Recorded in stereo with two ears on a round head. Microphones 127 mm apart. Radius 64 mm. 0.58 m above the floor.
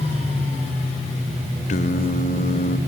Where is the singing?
50° left (ahead or behind), 1.5 m.